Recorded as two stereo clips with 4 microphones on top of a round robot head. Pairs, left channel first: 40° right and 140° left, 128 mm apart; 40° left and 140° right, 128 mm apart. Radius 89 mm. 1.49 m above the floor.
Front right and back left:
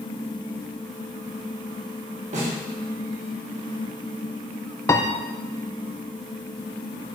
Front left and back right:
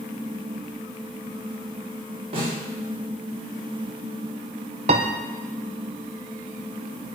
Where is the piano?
110° right, 0.6 m.